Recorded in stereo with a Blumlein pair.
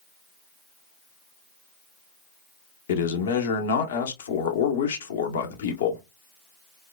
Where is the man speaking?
60° left, 0.8 m.